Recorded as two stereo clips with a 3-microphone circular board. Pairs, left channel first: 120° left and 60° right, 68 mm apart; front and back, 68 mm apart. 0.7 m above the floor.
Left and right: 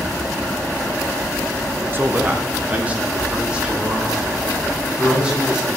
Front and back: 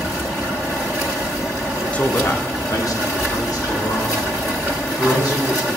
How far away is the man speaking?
About 0.6 m.